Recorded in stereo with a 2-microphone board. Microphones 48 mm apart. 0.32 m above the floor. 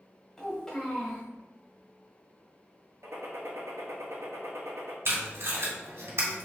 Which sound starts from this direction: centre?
A child speaking, at 0.4 s.